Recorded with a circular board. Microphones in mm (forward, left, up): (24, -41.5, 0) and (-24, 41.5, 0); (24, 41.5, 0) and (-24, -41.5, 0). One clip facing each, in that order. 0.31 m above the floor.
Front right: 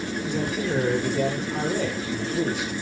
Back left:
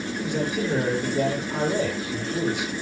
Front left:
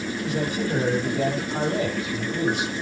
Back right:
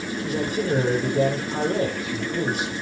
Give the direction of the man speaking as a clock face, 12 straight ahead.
6 o'clock.